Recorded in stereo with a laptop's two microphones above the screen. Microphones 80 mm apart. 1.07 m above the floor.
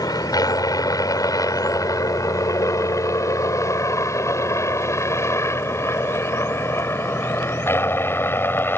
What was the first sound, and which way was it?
A helicopter, 55° left (ahead or behind).